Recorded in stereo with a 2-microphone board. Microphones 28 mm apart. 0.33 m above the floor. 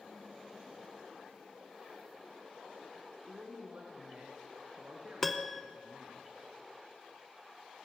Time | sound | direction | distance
3.3 | a man speaking | 75° right (ahead or behind) | 3.5 m
5.2 | a piano | 10° left (ahead or behind) | 0.7 m